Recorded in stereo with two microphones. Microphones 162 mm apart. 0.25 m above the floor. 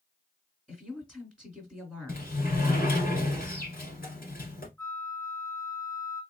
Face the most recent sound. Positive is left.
turn(degrees=20)  # may be behind; listen again after turning